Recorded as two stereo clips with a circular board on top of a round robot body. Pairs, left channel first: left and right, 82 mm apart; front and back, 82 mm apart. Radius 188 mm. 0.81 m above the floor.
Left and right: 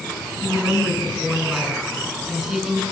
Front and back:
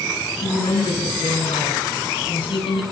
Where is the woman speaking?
Straight ahead, 8.5 m.